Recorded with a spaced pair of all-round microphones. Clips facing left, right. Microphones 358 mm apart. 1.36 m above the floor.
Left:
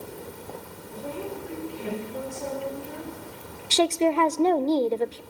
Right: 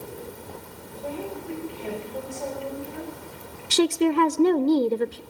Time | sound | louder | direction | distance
0.9 | a woman speaking | right 1 dB | 25° left (ahead or behind) | 8.5 m
3.7 | a woman speaking | right 2 dB | 20° right (ahead or behind) | 0.5 m